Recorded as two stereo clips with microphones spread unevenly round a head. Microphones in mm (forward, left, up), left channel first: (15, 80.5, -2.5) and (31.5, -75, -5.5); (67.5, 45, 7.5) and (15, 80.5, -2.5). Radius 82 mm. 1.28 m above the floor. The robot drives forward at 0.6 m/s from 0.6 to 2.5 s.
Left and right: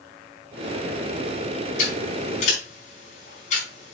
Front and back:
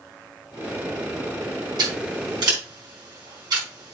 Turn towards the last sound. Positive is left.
turn(degrees=145)